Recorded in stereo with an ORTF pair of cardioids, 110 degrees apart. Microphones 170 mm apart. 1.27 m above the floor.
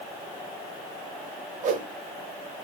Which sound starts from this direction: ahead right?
A whoosh, at 1.6 s.